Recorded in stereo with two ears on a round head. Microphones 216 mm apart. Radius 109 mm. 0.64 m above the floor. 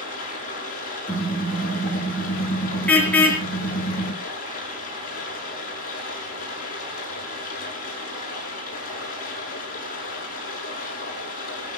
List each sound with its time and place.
0.0 s running water: 35° left (ahead or behind), 7.5 m
1.1 s a car horn: 5° left (ahead or behind), 4.5 m